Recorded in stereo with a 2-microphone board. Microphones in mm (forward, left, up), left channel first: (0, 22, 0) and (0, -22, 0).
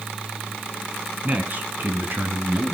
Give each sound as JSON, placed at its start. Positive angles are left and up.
{"t": 1.2, "sound": "a man speaking", "side_deg": -40, "distance_m": 2.5}